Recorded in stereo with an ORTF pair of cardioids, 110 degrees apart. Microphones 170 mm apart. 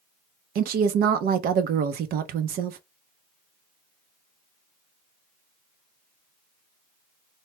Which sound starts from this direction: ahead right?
A woman speaking, at 0.6 s.